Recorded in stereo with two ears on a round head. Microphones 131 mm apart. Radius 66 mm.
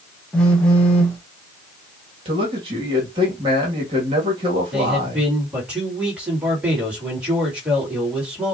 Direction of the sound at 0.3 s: 5° left (ahead or behind).